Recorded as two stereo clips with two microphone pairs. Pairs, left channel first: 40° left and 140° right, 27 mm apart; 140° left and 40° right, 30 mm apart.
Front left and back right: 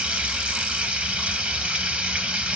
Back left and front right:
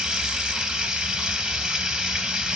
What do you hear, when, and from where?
0.0 s running water: 105° right, 0.8 m